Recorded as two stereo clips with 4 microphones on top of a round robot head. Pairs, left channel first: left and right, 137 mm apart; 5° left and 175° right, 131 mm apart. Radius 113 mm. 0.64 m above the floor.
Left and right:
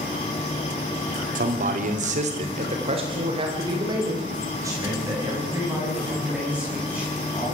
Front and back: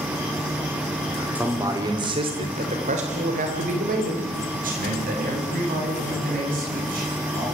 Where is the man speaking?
95° right, 2.5 m; by 7.4 s 170° right, 8.5 m.